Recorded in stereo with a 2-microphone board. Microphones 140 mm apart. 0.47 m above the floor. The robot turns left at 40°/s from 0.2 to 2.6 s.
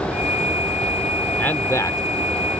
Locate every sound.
1.4 s a man speaking: 10° left (ahead or behind); by 2.0 s 25° left (ahead or behind)